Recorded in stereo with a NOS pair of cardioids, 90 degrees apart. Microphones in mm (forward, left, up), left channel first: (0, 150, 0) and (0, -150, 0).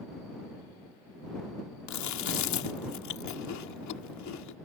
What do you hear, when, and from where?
1.9 s chewing: 70° left